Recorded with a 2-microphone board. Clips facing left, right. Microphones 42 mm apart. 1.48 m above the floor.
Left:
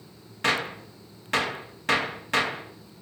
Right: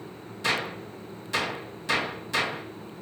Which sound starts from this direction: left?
A gunshot, at 0.4 s.